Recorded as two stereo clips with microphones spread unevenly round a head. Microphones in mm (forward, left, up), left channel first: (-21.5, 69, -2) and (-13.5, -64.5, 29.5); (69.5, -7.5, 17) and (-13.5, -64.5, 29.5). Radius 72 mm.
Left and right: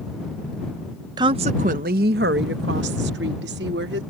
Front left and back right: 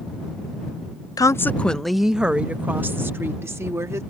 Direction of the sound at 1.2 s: 20° right.